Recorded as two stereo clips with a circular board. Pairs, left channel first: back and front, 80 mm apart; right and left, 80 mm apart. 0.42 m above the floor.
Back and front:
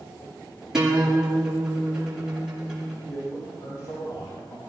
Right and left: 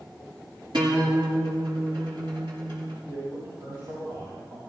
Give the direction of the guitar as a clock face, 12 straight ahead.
9 o'clock.